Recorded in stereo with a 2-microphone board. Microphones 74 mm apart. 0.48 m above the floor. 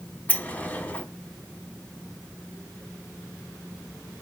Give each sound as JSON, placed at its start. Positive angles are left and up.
{"t": 0.3, "sound": "a sliding door", "side_deg": 20, "distance_m": 0.9}